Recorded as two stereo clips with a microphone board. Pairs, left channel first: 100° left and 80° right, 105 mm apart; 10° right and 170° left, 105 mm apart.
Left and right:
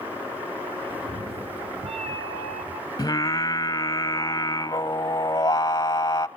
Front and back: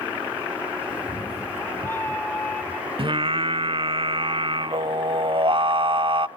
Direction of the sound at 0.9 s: 50° right.